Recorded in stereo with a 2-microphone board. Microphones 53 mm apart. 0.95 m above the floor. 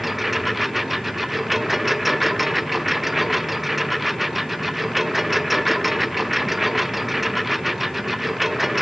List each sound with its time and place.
0.0 s a lawn mower: centre (ahead or behind)